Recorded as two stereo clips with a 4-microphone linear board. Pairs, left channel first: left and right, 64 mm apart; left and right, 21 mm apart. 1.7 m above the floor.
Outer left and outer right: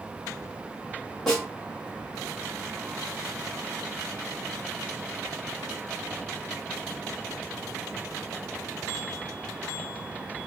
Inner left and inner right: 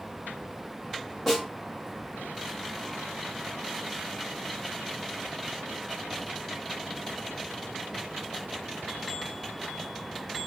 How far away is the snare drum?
About 1.3 m.